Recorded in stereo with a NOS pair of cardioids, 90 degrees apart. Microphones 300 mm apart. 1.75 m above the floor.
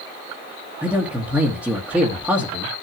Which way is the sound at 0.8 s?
5° right.